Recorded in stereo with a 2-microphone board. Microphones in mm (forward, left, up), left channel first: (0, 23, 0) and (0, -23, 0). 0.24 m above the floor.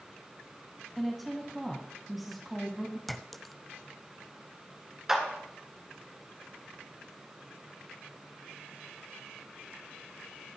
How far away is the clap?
About 3 m.